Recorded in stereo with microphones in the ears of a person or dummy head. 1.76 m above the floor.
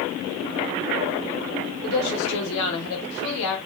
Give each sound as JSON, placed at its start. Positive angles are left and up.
{"t": 1.8, "sound": "a woman speaking", "side_deg": 80, "distance_m": 0.9}